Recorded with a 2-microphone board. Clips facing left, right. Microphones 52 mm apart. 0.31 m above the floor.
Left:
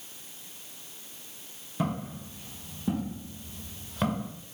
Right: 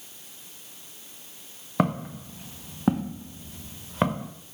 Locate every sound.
1.8 s footsteps: 75° right (ahead or behind), 2 m; by 4.3 s 30° right (ahead or behind), 2 m